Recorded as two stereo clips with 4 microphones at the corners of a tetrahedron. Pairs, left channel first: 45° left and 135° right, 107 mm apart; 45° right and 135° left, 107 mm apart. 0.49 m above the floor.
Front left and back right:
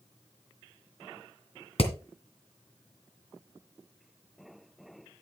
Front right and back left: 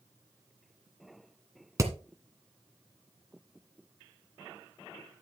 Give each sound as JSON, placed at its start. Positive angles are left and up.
{"t": 1.8, "sound": "hammering", "azimuth_deg": 75, "distance_m": 2.0}